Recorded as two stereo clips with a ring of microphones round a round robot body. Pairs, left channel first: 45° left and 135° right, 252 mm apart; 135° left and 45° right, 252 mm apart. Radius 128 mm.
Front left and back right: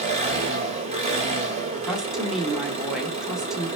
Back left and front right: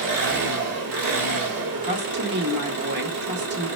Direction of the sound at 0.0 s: 70° right.